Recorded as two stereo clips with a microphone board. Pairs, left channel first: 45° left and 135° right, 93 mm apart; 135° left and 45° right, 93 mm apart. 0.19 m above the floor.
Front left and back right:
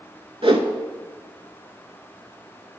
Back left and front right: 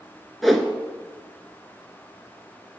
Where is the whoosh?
135° right, 0.7 m.